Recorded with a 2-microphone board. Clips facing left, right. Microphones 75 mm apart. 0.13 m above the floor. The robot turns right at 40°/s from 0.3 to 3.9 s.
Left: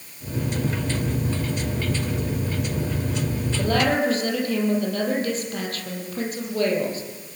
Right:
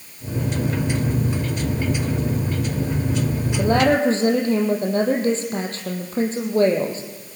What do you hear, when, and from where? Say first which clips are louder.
3.6 s a woman speaking: right 4 dB; 15° right (ahead or behind), 4 m; by 7.0 s 30° right (ahead or behind), 4 m